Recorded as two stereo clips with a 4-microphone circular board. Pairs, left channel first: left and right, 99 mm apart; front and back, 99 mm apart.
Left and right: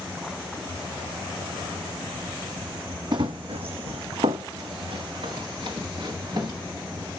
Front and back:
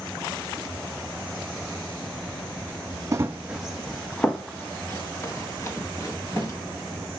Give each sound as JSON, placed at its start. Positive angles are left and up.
{"t": 3.1, "sound": "running footsteps", "azimuth_deg": -125, "distance_m": 0.5}